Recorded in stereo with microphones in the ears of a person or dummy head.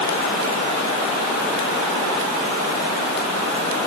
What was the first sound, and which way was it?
Only background noise.